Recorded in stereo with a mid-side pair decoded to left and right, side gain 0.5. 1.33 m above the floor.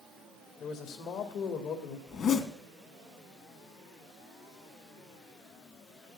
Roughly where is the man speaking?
Ahead left.